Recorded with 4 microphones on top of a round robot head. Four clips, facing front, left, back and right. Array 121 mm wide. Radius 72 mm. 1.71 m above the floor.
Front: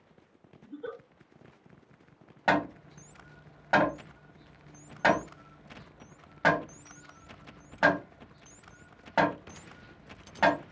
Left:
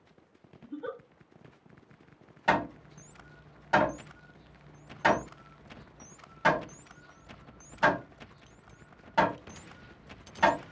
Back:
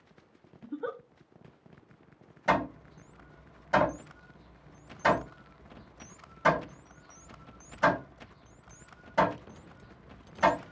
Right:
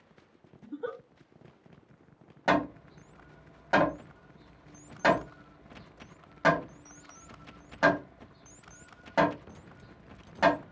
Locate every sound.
0.6 s a giggle: 160° right, 0.5 m
2.5 s hammering: 30° right, 1.4 m